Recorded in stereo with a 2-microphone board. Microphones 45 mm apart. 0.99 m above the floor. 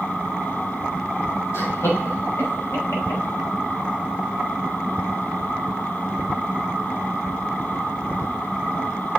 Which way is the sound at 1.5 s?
85° left.